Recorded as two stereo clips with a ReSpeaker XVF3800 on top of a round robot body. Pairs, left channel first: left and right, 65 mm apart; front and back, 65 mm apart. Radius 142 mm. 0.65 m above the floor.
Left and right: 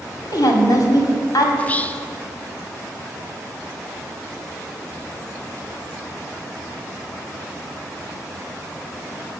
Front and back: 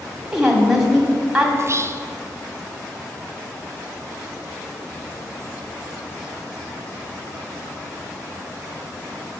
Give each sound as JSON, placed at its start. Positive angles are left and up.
{"t": 0.2, "sound": "a woman speaking", "azimuth_deg": 95, "distance_m": 2.0}
{"t": 1.6, "sound": "whispering", "azimuth_deg": 150, "distance_m": 0.7}